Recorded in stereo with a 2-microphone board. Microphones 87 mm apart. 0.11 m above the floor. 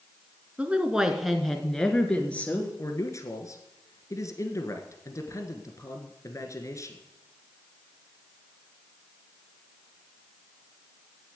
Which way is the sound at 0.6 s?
15° right (ahead or behind).